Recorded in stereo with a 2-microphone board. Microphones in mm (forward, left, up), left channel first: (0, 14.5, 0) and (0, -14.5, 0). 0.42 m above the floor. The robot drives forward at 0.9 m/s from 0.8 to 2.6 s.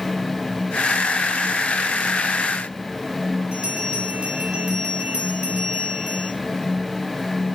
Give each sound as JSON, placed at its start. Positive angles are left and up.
{"t": 3.5, "sound": "a bell", "side_deg": -40, "distance_m": 8.0}